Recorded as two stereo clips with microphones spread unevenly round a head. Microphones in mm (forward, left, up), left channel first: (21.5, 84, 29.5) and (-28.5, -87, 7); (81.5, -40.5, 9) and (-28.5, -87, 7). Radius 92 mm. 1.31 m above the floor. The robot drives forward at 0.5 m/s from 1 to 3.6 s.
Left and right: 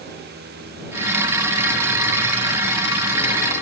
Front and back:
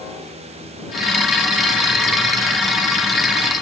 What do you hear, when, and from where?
Only background noise.